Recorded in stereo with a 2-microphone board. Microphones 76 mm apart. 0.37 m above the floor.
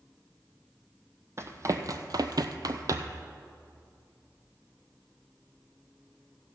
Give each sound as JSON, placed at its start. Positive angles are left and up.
{"t": 1.4, "sound": "running footsteps", "side_deg": -40, "distance_m": 0.9}